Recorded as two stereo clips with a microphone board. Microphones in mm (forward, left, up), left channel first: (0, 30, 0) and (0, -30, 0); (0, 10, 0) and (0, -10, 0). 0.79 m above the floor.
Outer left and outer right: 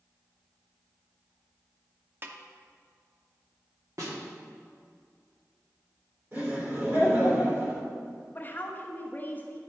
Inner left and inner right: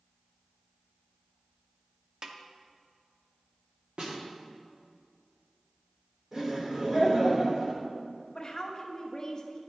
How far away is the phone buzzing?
I don't hear a phone buzzing.